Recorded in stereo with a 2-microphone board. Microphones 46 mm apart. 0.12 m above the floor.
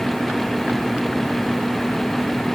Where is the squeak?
I don't hear a squeak.